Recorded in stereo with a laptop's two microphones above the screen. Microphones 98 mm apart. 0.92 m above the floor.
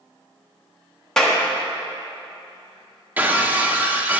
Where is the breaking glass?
20° right (ahead or behind), 1.0 m.